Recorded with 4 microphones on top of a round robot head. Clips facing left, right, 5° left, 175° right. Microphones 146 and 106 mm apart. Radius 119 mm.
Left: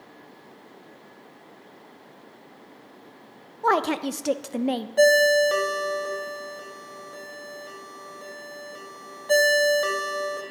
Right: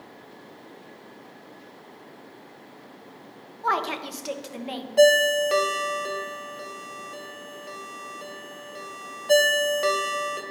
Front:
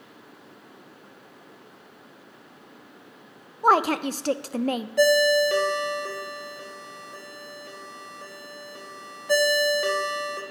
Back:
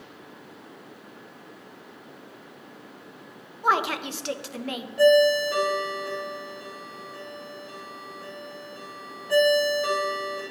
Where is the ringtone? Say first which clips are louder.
Even, back 2 dB; 10° right, 1.1 m.